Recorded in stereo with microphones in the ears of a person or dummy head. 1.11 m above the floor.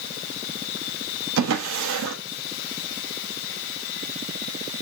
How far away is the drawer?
About 0.9 m.